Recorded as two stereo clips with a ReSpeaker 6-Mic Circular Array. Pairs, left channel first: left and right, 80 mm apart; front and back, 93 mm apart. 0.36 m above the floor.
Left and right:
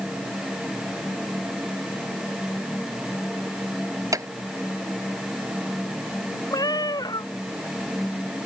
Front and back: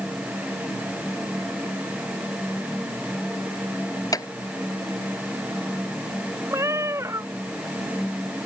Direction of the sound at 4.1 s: 45° right.